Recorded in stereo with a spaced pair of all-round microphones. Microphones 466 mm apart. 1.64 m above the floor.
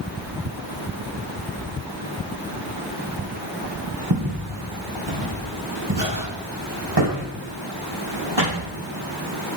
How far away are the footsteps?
About 2.5 m.